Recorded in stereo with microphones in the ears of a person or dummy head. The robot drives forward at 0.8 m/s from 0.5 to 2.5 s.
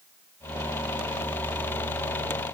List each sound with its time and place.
Only background noise.